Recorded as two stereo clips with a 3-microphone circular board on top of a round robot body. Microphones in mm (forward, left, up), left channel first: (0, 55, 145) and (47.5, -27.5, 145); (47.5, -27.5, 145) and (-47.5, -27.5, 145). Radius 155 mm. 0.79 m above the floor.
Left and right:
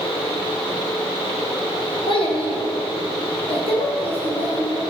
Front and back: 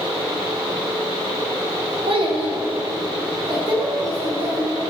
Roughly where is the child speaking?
Behind left.